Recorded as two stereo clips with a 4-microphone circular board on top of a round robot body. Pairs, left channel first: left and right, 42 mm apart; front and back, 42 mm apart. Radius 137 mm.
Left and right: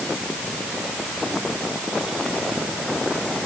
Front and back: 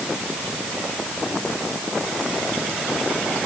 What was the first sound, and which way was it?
Only background noise.